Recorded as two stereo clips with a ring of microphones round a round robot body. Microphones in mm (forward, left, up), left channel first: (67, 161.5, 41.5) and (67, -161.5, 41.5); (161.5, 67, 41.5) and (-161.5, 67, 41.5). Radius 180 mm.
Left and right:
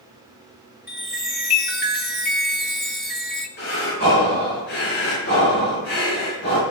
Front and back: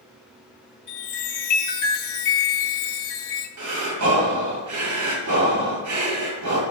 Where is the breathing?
150° left, 5.5 m.